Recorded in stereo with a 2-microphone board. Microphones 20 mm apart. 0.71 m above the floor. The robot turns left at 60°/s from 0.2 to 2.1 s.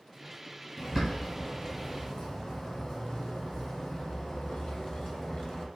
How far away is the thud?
No thud in this recording.